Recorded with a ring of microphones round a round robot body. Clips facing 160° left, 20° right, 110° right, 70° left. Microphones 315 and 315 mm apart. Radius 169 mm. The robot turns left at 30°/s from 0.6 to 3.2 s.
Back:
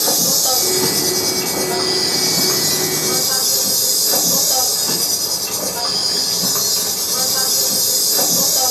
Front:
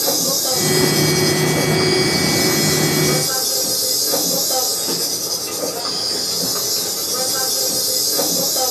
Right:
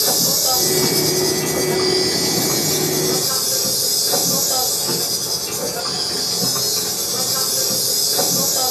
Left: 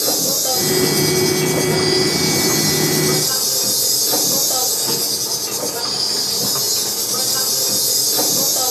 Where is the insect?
170° left, 2 m; by 8.7 s 90° left, 2 m.